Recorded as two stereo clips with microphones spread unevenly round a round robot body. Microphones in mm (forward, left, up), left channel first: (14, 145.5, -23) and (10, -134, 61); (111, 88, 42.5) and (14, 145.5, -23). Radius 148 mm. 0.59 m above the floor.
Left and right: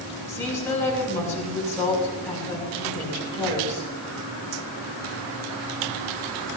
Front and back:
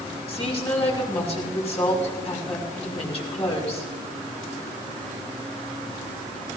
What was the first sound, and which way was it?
A woman speaking, 10° left.